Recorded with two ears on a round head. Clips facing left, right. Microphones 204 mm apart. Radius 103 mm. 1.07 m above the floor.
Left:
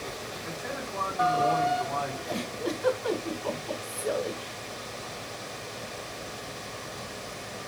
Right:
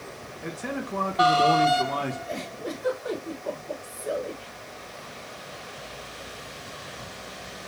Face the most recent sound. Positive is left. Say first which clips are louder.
# left 2 dB
turn(degrees=75)  # may be behind; listen again after turning